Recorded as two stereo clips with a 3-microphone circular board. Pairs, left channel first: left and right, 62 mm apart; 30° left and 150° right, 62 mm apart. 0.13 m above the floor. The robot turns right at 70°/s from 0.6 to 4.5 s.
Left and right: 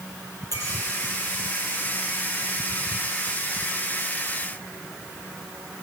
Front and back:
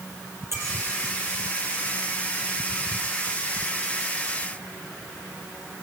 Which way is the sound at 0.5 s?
110° right.